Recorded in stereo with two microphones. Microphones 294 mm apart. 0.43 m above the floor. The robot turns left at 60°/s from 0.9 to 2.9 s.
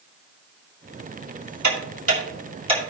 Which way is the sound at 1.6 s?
65° right (ahead or behind).